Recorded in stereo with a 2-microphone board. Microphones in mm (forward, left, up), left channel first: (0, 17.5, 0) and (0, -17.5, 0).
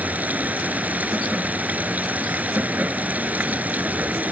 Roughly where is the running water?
Right.